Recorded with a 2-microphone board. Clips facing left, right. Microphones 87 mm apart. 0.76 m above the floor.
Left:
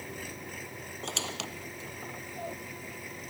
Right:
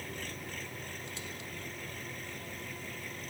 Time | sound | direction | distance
0.0 | an engine running | 10° left (ahead or behind) | ?
1.0 | a squeak | 85° left | ?